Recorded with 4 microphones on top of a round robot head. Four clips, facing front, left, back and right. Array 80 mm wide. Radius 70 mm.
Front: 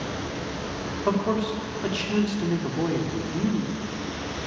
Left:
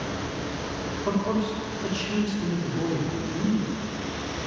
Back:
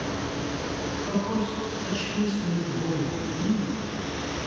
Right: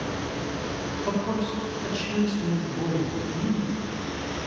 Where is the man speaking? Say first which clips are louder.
Left 2 dB, front 5 dB; 15° left, 2.5 m.